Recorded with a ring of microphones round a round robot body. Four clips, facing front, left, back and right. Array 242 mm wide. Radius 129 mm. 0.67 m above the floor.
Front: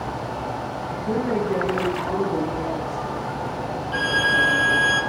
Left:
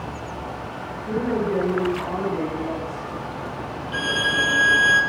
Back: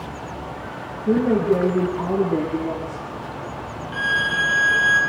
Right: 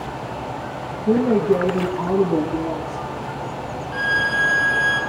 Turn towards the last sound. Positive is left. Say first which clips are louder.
# right 2 dB, front 1 dB
turn(degrees=50)